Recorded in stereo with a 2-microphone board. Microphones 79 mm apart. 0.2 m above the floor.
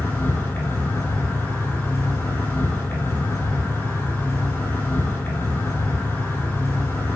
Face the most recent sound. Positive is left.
turn(degrees=30)  # may be behind; listen again after turning